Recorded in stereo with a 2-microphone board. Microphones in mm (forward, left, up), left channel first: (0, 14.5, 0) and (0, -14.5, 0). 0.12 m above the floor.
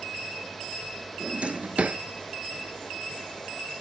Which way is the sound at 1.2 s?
45° right (ahead or behind).